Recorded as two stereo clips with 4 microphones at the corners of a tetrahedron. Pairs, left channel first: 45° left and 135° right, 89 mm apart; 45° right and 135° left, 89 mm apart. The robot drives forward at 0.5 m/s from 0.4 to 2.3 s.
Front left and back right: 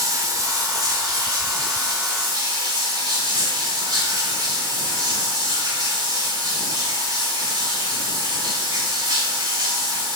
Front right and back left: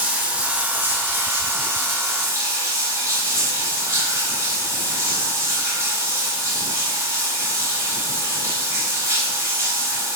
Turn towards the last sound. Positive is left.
turn(degrees=-170)